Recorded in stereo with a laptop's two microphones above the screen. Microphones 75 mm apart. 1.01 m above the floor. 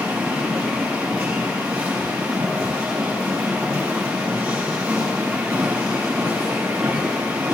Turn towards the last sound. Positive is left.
turn(degrees=-15)  # may be behind; listen again after turning